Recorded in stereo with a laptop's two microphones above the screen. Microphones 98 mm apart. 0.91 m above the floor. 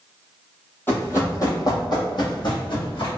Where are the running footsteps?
25° left (ahead or behind), 1.0 m; by 3.1 s 60° left (ahead or behind), 1.7 m.